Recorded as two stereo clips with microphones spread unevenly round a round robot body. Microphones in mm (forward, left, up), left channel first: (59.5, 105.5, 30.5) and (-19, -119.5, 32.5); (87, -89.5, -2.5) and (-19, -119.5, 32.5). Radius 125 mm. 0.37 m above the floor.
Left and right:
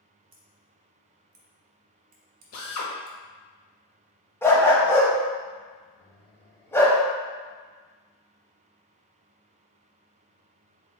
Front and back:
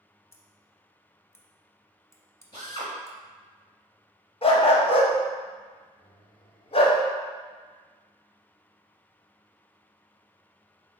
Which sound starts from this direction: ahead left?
A drill, at 2.5 s.